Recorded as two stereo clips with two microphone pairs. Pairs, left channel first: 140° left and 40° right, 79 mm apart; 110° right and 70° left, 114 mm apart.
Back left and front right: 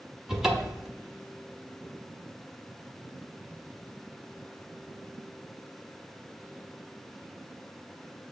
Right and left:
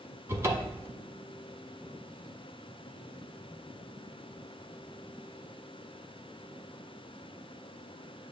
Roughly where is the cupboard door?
Ahead left.